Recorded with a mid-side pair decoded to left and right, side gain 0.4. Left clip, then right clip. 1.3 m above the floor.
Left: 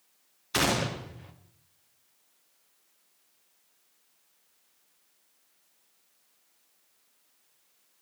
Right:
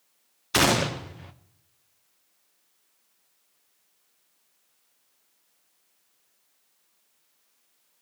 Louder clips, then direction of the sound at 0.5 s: Right 5 dB; 45° right.